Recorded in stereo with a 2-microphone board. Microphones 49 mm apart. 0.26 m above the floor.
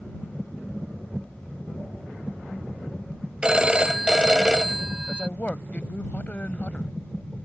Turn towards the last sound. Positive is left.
turn(degrees=30)  # may be behind; listen again after turning